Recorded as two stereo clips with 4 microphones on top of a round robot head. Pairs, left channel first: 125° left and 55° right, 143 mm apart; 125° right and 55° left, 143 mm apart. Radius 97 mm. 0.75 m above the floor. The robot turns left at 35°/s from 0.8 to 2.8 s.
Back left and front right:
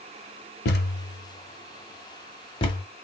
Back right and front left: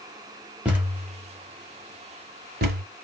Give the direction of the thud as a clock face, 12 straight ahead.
8 o'clock.